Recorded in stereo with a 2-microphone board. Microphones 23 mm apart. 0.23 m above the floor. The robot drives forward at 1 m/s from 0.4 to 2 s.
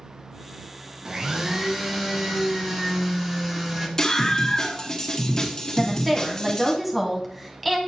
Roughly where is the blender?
Right.